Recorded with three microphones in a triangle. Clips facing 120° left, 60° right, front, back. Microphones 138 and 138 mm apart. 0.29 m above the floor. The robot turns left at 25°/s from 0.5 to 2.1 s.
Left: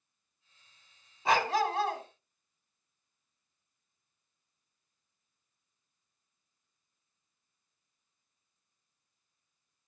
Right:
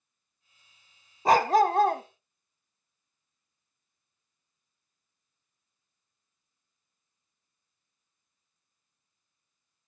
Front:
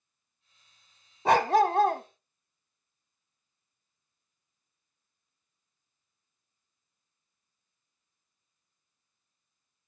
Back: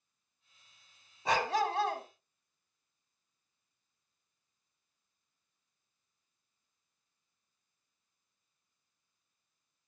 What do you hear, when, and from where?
1.2 s a dog barking: 15° right, 0.9 m; by 2.0 s 35° right, 0.9 m